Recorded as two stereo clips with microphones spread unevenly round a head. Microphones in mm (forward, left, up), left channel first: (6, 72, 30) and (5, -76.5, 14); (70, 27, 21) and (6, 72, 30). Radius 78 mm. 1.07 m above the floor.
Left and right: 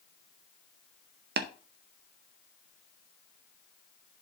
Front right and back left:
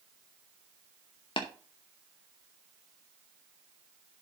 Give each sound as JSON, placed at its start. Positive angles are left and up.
{"t": 1.4, "sound": "tapping", "azimuth_deg": -70, "distance_m": 0.7}